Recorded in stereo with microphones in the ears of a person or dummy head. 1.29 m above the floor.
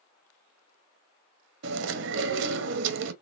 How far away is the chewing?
About 0.9 m.